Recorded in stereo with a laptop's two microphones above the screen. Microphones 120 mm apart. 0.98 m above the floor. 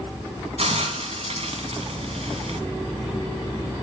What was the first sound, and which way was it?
A hiss, 70° right (ahead or behind).